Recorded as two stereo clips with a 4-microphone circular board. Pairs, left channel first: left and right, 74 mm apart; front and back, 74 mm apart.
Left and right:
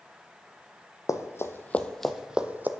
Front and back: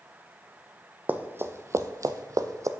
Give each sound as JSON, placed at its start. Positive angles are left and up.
{"t": 1.1, "sound": "running footsteps", "azimuth_deg": 120, "distance_m": 0.7}